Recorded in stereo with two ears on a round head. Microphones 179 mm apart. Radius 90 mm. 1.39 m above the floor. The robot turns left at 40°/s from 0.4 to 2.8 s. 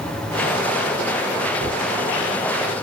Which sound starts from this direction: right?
A gunshot, at 1.6 s.